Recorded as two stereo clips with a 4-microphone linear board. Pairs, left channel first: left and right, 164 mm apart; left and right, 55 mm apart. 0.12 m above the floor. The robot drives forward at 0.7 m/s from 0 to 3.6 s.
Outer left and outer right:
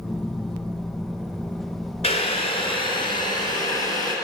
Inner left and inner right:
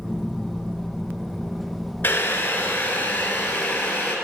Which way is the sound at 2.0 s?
35° left (ahead or behind).